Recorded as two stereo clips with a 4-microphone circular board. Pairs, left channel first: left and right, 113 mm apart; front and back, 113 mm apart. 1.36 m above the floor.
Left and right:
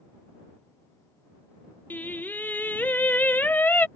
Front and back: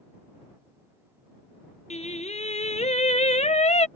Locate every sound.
1.9 s singing: 15° left